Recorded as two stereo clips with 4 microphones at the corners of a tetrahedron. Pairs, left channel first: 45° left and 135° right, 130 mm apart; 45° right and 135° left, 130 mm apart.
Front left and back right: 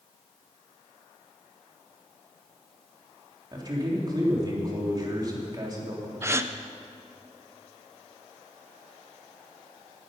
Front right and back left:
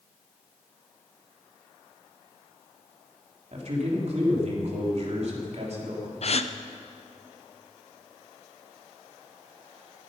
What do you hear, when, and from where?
3.5 s a man speaking: 165° left, 3.5 m
6.2 s a gasp: 70° right, 0.6 m